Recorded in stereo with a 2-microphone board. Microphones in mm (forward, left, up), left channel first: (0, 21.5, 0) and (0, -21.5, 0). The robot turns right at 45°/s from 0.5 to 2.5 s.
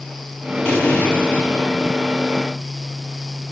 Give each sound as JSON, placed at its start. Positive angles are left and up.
{"t": 0.7, "sound": "an explosion", "azimuth_deg": 25, "distance_m": 6.5}